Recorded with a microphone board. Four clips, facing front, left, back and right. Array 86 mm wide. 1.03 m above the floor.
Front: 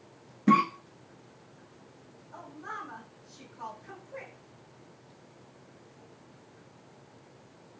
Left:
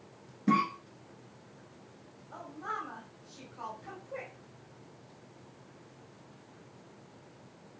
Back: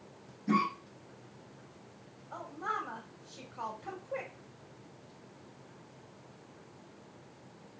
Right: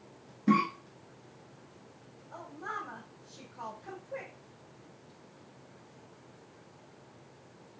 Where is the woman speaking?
175° left, 2.5 m.